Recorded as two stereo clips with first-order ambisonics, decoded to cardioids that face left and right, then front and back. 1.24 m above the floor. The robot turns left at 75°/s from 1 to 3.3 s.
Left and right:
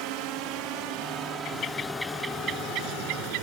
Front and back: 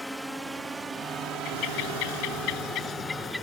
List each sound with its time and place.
0.0 s a drone: 85° right; by 3.4 s 55° left
1.4 s a bird: 50° left; by 3.4 s 90° right